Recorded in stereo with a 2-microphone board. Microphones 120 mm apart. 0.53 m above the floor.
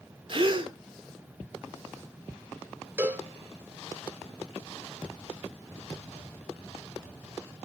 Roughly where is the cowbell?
Centre.